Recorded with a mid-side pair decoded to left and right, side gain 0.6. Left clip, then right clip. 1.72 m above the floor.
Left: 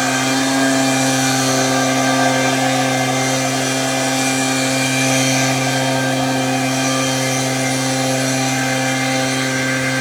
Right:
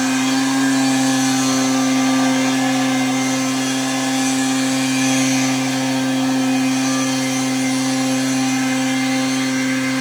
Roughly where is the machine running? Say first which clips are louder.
Left 2 dB; ahead left.